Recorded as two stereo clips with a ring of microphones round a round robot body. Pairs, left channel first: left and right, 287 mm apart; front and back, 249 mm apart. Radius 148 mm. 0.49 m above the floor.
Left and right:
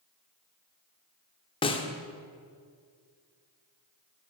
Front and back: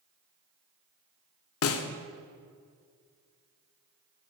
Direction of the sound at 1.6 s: 20° left.